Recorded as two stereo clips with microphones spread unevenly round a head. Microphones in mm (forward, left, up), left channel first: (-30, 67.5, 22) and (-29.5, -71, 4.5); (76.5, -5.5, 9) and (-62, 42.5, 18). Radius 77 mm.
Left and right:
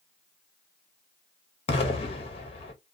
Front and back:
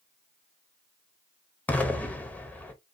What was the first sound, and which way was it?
An explosion, 60° left.